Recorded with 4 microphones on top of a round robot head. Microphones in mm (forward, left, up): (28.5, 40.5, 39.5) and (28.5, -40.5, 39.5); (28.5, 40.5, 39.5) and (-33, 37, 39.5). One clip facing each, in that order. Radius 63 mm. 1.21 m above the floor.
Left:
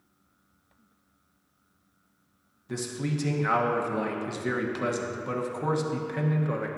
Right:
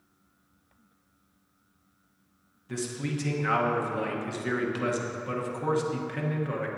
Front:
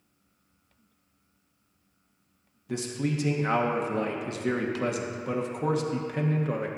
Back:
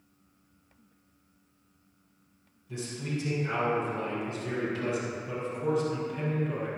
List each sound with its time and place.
2.7 s a man speaking: 20° left, 0.9 m